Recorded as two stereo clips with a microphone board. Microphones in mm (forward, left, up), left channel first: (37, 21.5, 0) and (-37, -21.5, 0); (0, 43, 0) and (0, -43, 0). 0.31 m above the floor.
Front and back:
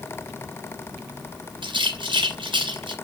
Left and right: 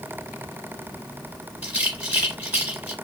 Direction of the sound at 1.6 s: 165° right.